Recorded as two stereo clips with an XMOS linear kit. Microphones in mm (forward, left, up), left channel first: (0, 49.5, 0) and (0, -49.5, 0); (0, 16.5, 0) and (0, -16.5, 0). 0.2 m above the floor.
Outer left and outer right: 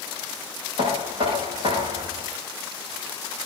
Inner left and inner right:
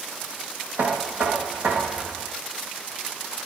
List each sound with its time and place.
0.8 s knocking: 60° right (ahead or behind), 8.5 m